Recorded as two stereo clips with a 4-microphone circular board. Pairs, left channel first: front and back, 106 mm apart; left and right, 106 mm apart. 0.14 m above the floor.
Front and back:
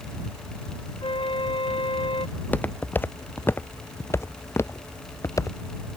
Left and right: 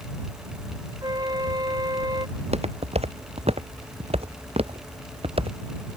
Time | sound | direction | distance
1.0 | a flute | 35° right | ?
2.4 | footsteps | 75° right | ?